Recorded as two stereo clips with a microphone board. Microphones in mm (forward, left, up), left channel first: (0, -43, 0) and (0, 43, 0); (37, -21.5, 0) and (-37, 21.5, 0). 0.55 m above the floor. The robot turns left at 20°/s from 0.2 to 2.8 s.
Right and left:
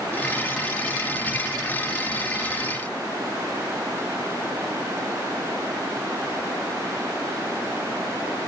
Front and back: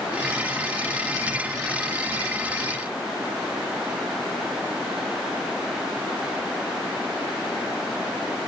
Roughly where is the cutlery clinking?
I don't hear cutlery clinking.